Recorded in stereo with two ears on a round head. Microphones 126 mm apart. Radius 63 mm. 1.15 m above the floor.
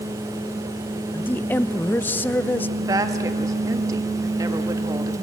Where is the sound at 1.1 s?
15° left (ahead or behind), 0.6 m.